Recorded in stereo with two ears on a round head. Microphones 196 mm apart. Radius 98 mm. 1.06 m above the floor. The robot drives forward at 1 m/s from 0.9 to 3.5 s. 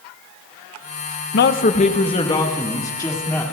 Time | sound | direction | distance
1.3 | a man speaking | 50° left (ahead or behind) | 0.6 m